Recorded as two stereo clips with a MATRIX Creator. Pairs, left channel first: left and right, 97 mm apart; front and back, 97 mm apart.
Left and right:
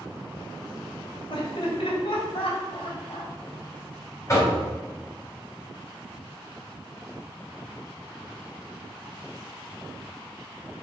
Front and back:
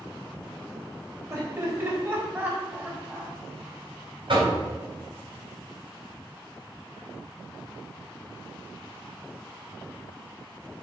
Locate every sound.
1.3 s laughter: 120° left, 4 m; by 3.3 s 105° left, 4 m
4.3 s knocking: 150° left, 4 m